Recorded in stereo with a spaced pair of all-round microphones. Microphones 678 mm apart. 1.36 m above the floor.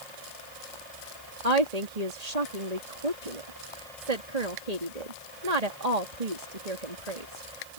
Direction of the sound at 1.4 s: 70° right (ahead or behind).